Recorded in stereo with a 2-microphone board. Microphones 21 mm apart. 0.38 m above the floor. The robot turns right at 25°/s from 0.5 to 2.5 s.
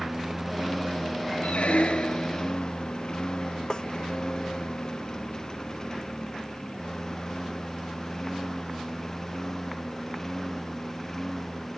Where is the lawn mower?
5° right (ahead or behind); by 11.8 s 15° left (ahead or behind).